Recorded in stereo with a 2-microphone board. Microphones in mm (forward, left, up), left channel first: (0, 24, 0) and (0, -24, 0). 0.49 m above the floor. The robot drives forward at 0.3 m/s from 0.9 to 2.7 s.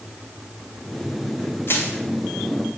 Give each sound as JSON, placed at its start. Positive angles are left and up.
{"t": 1.7, "sound": "crushing", "side_deg": 55, "distance_m": 2.5}